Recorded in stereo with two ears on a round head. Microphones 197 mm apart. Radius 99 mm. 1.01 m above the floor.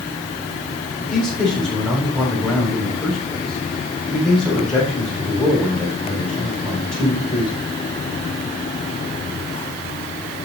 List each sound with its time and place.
1.0 s a man speaking: centre (ahead or behind), 7 m